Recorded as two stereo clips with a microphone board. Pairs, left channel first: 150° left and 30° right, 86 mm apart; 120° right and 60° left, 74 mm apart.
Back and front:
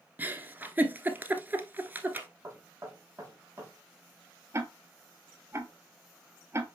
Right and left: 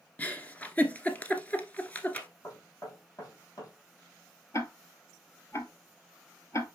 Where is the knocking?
90° right, 3.5 m.